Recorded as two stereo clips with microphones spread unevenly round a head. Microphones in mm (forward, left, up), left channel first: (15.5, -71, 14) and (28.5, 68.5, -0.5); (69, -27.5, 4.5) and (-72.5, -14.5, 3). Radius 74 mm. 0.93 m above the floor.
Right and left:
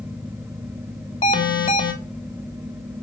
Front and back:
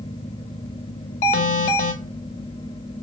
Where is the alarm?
40° right, 3 m.